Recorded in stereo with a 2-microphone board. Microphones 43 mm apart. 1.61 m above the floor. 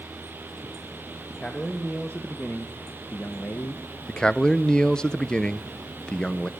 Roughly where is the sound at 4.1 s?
Centre.